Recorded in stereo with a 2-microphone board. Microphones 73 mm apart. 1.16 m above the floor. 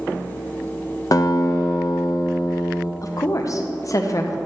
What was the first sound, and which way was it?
A guitar, 50° left (ahead or behind).